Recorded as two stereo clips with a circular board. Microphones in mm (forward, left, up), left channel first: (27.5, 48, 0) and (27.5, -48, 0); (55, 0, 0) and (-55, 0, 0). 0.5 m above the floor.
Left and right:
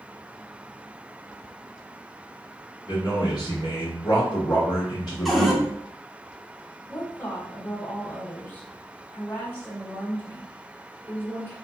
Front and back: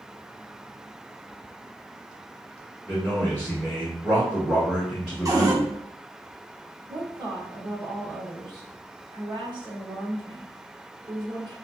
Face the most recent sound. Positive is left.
turn(degrees=150)